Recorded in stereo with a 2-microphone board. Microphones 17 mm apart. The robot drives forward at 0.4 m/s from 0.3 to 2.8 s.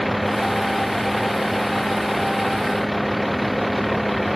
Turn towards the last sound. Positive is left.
turn(degrees=5)  # may be behind; listen again after turning